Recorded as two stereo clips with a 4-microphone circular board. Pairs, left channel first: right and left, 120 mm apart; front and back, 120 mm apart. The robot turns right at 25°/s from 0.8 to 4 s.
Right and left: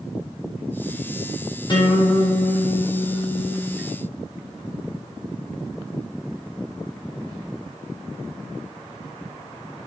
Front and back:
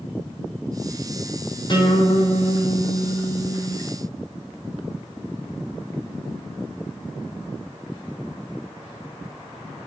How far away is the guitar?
About 4.5 m.